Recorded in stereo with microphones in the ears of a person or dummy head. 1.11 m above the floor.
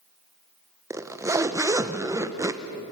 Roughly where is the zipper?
Centre.